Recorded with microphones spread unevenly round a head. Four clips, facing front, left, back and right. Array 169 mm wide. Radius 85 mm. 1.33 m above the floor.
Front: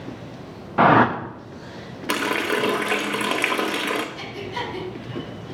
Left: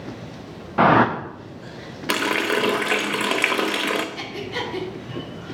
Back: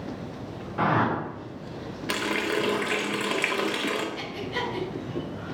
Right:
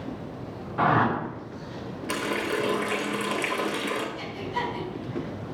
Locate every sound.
0.8 s a whoosh: 40° left, 0.6 m
2.1 s a running tap: 50° left, 0.7 m
4.2 s breathing: 95° left, 2 m